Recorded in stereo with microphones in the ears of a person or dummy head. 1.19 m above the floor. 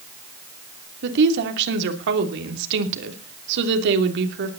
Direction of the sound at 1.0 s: 65° right (ahead or behind).